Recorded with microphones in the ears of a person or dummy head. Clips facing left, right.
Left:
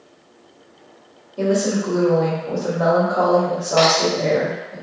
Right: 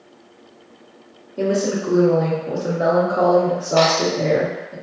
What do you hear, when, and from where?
1.4 s a woman speaking: 25° right (ahead or behind), 1.0 m
3.8 s a crack: 45° right (ahead or behind), 1.1 m